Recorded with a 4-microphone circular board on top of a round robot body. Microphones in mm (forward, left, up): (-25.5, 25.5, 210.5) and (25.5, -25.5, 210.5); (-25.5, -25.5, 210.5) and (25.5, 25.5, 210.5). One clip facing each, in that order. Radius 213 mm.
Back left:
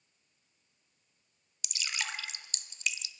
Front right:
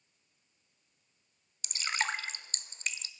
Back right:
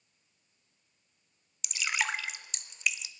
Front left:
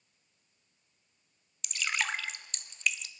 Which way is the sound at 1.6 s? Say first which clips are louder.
Front right 5 dB, back right 1 dB; 55° right.